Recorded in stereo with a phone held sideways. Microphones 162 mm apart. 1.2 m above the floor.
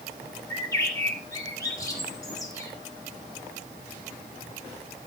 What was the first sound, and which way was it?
A bird, 20° left (ahead or behind).